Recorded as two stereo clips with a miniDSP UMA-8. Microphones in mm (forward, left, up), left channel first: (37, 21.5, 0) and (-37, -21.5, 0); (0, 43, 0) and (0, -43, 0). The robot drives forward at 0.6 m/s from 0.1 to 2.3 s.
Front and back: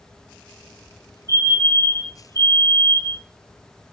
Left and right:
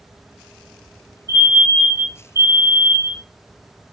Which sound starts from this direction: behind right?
A fire alarm, at 1.3 s.